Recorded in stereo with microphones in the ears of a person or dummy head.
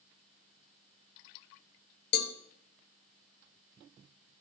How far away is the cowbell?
About 0.7 m.